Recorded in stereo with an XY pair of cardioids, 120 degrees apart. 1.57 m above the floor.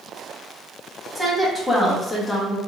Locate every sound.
1.1 s a woman speaking: straight ahead, 1.6 m; by 2.6 s 25° left, 1.2 m